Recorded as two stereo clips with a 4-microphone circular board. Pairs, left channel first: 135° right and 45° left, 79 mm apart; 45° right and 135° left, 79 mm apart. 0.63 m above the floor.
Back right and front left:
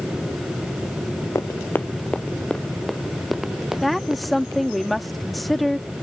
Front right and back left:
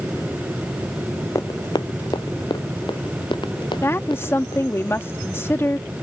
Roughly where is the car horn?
No car horn in this recording.